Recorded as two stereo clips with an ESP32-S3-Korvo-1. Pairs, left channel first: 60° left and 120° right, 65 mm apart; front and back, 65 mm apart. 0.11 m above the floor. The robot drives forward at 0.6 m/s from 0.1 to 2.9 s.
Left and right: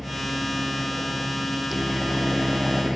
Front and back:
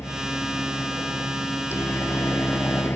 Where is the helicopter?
30° right.